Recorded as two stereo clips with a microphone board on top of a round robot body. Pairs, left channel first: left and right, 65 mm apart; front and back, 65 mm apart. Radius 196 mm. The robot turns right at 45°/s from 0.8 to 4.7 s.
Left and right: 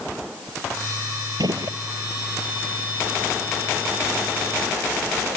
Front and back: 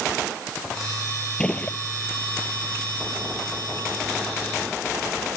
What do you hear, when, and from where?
1.4 s a gunshot: 75° right; by 1.8 s 60° right